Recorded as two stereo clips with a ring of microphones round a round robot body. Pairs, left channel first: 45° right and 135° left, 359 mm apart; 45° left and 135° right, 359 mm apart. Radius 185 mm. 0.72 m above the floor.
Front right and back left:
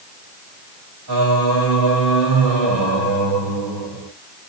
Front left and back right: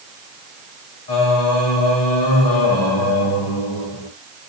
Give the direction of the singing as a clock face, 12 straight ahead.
9 o'clock.